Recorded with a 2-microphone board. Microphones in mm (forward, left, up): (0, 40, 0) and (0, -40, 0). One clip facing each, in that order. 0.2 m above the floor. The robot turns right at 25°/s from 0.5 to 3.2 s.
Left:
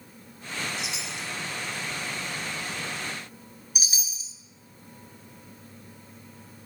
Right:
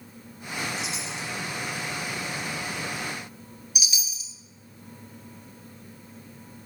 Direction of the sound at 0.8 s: 30° right (ahead or behind).